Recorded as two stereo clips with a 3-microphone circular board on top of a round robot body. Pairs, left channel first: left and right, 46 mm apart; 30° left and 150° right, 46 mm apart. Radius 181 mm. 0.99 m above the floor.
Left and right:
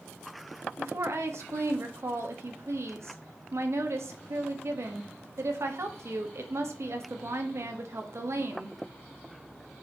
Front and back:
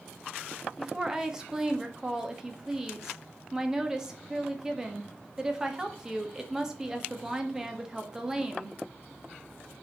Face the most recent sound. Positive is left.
turn(degrees=-75)